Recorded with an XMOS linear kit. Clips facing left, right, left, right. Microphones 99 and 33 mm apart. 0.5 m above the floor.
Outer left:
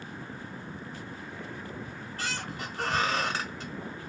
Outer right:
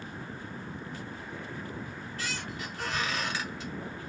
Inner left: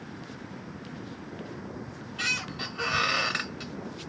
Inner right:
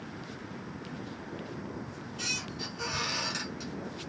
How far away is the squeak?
About 0.9 m.